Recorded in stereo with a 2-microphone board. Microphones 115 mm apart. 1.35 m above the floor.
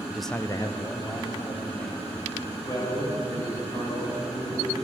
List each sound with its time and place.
0.1 s a man speaking: 15° right (ahead or behind), 0.5 m; by 2.1 s 45° left (ahead or behind), 2.5 m
2.6 s a man speaking: 35° left (ahead or behind), 5 m